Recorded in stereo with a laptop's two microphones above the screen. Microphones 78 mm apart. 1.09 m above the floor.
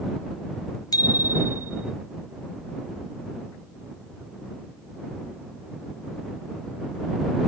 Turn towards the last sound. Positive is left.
turn(degrees=45)  # may be behind; listen again after turning